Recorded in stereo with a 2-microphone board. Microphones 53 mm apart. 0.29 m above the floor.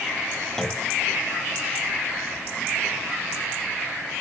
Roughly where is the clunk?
Centre.